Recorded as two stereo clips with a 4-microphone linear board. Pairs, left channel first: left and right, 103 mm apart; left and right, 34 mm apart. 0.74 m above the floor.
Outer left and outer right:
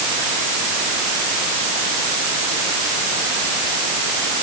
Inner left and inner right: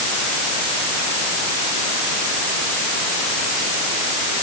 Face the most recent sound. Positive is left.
No sound to turn to.